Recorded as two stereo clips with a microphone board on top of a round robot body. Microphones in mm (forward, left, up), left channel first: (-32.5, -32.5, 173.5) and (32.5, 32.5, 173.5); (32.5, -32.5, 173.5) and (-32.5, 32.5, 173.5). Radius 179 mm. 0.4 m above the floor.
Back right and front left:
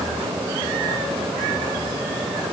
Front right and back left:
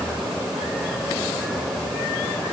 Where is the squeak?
No squeak in this recording.